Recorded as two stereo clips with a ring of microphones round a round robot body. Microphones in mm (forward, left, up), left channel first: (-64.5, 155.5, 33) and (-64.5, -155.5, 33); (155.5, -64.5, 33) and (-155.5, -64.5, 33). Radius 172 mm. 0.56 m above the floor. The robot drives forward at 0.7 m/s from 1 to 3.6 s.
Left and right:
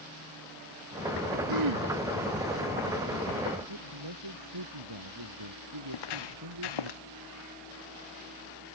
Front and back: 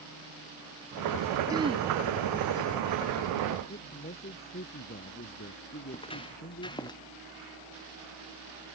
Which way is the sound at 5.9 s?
75° left.